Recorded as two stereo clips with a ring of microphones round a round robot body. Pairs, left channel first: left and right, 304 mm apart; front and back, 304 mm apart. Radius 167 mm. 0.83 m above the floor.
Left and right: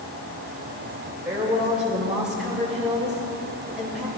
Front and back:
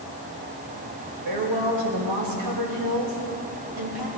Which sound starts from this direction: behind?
A woman speaking, at 1.2 s.